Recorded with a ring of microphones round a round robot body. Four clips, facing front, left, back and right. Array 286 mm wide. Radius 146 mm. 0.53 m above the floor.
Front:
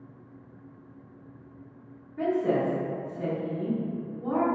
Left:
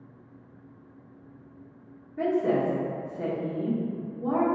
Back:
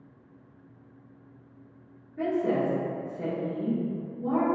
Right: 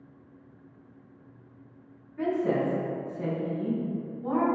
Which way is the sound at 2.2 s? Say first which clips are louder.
Left 2 dB, front 1 dB; 95° left.